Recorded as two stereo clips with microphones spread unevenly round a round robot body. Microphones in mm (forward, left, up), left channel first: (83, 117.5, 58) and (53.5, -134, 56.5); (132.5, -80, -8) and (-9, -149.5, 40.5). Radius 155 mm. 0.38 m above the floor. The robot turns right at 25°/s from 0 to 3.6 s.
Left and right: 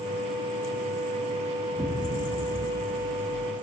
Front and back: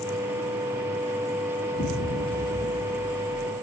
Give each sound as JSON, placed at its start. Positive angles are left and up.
{"t": 1.8, "sound": "an explosion", "azimuth_deg": -10, "distance_m": 4.5}